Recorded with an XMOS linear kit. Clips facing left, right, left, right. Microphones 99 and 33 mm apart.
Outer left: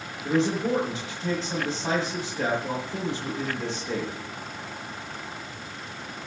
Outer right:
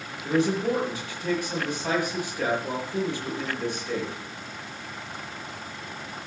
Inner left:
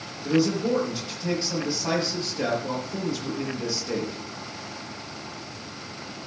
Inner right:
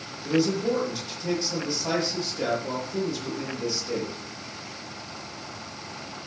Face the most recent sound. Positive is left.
turn(degrees=25)  # may be behind; listen again after turning